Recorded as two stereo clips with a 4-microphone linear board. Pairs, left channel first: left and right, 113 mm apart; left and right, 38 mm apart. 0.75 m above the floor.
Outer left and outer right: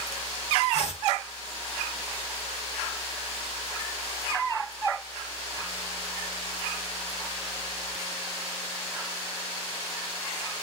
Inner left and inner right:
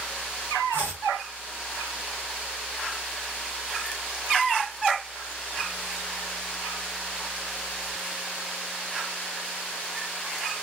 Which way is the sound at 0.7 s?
60° left (ahead or behind).